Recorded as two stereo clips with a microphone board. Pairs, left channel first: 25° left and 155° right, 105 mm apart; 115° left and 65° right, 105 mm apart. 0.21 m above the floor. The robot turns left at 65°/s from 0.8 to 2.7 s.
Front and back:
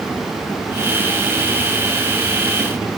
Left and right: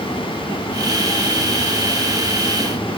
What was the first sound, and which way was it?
Only background noise.